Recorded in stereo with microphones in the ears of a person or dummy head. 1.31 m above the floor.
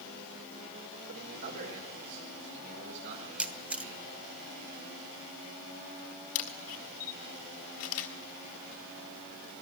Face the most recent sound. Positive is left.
turn(degrees=70)  # may be behind; listen again after turning